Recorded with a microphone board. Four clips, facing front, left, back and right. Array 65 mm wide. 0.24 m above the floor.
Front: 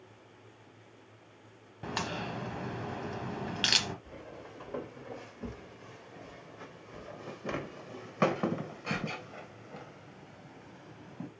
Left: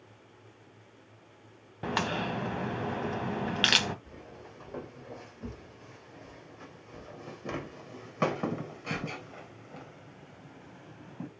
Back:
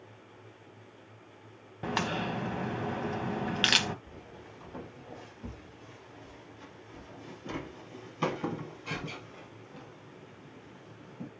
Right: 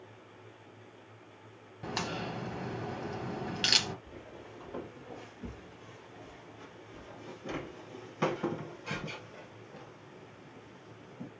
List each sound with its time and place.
1.8 s a crack: 120° left, 0.9 m
4.0 s footsteps: 10° left, 5.5 m; by 11.3 s 50° left, 2.5 m